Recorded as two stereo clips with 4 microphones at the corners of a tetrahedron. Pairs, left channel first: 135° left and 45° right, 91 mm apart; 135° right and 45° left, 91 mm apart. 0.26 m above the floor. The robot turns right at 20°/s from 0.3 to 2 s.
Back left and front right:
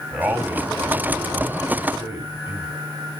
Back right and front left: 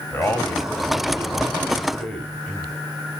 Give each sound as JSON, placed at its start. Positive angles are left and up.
{"t": 0.1, "sound": "a man speaking", "azimuth_deg": -110, "distance_m": 1.2}